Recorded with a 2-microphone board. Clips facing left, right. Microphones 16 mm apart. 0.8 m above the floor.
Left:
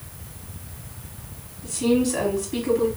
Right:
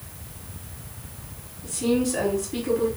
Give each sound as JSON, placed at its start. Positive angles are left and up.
{"t": 1.6, "sound": "a woman speaking", "side_deg": 45, "distance_m": 1.9}